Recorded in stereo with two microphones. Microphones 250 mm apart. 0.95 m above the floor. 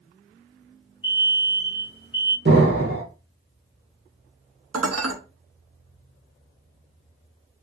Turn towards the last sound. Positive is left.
turn(degrees=-70)  # may be behind; listen again after turning